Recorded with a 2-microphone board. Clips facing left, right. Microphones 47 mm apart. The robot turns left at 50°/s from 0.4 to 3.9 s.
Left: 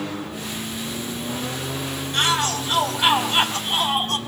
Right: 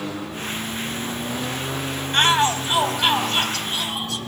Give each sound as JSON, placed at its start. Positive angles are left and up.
{"t": 2.1, "sound": "a shout", "azimuth_deg": -135, "distance_m": 4.0}